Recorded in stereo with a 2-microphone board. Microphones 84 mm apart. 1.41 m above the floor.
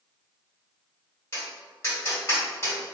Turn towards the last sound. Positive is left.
turn(degrees=30)  # may be behind; listen again after turning